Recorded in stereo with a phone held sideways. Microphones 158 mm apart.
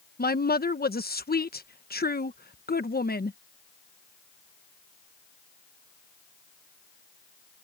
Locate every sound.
0.2 s a woman speaking: 75° left (ahead or behind)